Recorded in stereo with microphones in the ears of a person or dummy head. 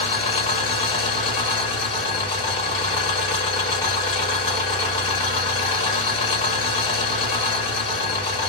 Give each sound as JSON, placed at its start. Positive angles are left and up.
{"t": 0.0, "sound": "an engine running", "side_deg": 35, "distance_m": 1.9}